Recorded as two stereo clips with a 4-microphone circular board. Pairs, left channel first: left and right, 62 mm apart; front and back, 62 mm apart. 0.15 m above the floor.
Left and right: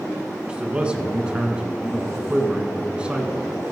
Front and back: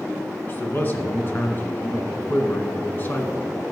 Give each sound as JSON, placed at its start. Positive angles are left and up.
{"t": 0.5, "sound": "a man speaking", "azimuth_deg": -25, "distance_m": 1.7}